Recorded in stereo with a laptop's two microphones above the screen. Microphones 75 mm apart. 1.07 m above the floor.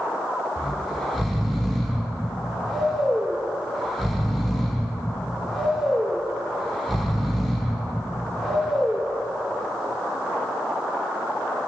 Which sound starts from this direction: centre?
Snoring, at 0.6 s.